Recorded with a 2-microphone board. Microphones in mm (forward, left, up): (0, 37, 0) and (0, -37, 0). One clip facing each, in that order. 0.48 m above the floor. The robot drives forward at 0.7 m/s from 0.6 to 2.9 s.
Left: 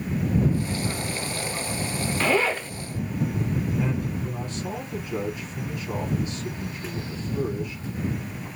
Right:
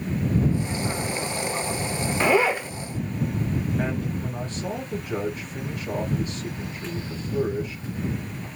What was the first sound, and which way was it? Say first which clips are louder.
A zipper: right 3 dB; 20° right (ahead or behind).